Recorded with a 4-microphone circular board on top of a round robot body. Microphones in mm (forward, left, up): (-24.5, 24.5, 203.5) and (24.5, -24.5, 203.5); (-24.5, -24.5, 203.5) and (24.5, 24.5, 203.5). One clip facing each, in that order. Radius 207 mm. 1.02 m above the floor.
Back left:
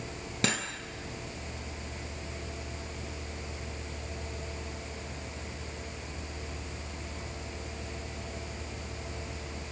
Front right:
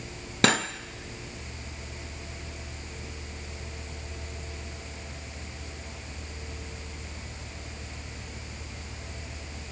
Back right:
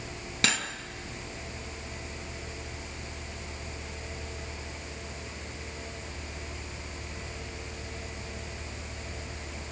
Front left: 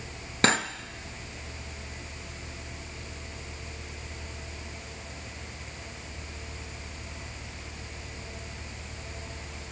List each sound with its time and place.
0.4 s cutlery clinking: 10° right, 0.6 m